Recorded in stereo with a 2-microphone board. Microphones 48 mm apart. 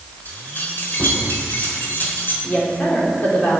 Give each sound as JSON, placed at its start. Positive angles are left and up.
{"t": 0.2, "sound": "keys jangling", "side_deg": 40, "distance_m": 3.5}
{"t": 2.4, "sound": "a woman speaking", "side_deg": 35, "distance_m": 3.5}